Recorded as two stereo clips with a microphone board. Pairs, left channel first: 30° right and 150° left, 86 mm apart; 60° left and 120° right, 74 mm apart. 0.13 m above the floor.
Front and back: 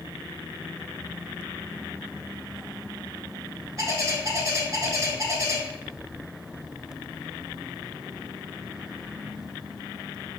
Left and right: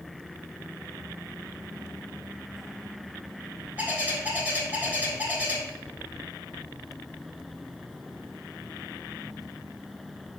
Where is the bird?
Straight behind, 0.9 m.